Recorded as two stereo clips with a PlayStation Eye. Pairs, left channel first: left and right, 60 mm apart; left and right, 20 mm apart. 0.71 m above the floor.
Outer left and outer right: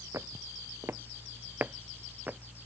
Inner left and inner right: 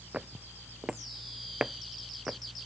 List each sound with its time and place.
0.1 s footsteps: 55° right (ahead or behind); by 2.4 s 20° right (ahead or behind)